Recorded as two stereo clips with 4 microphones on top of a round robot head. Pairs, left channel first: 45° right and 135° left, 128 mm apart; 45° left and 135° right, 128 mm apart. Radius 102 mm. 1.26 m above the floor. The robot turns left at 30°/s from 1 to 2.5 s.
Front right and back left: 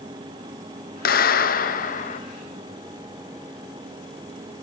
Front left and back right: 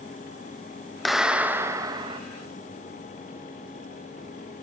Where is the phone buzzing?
I don't hear a phone buzzing.